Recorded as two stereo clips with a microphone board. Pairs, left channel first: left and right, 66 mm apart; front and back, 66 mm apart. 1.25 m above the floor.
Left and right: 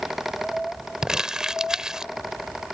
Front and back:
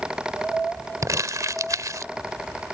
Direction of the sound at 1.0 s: 170° right.